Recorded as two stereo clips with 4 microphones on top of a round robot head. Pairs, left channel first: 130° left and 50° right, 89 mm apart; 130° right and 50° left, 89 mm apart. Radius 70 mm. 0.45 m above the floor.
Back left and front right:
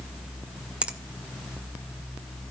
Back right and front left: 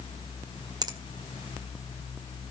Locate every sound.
0.8 s a finger snap: 25° left, 1.6 m